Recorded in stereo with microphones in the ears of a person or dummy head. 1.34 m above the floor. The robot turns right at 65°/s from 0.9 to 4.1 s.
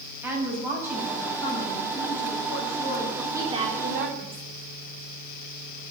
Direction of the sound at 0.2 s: 15° right.